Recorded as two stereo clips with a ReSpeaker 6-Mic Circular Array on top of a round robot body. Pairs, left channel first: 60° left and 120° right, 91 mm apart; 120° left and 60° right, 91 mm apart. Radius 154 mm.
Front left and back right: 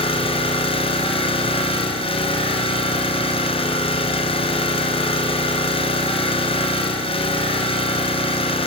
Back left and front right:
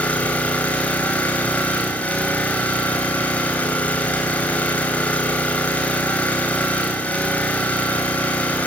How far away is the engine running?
About 3 m.